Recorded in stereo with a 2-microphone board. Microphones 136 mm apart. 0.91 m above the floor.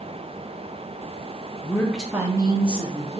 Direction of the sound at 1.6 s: 20° left (ahead or behind).